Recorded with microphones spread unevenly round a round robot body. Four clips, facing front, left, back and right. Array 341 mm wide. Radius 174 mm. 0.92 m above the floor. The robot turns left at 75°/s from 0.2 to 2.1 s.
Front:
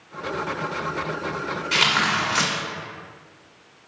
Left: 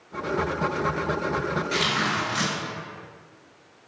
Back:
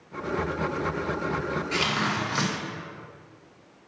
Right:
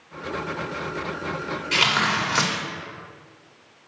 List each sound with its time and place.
1.7 s tearing paper: 40° right, 1.7 m; by 2.5 s 70° right, 1.7 m